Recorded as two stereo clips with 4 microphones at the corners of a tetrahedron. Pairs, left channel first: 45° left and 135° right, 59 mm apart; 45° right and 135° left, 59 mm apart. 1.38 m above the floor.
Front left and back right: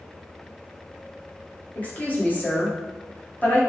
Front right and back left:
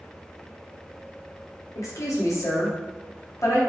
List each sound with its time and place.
1.8 s a woman speaking: 20° right, 1.1 m